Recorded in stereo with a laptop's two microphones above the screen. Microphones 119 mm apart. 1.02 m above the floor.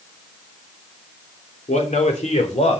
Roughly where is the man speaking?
Left.